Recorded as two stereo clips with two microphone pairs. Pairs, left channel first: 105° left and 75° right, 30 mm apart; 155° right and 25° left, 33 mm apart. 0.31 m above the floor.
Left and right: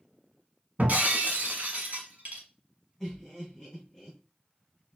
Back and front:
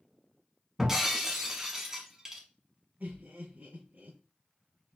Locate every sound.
0.8 s breaking glass: 50° right, 1.3 m
3.0 s laughter: 25° left, 2.5 m